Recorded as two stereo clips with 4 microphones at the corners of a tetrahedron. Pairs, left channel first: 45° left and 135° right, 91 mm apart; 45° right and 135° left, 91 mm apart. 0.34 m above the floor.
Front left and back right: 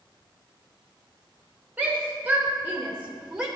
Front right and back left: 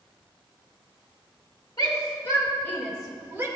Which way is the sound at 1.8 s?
65° right.